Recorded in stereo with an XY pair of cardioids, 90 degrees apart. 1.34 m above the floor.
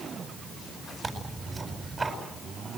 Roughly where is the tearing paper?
Ahead right.